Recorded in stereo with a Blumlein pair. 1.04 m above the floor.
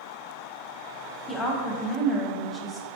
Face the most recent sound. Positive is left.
turn(degrees=20)